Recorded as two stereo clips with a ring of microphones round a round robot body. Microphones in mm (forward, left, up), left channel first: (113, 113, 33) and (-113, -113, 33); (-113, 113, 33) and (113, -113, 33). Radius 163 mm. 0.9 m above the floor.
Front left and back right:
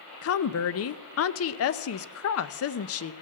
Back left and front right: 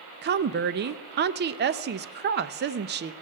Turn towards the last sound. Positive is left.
turn(degrees=10)